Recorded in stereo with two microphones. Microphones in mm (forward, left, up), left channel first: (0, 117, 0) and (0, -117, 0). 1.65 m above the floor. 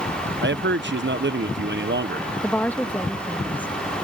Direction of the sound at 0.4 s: 50° right (ahead or behind).